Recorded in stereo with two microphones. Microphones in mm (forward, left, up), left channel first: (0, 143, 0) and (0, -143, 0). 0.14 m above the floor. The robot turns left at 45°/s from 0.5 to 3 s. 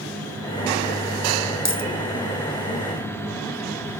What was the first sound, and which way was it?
A dropped coin, 70° left (ahead or behind).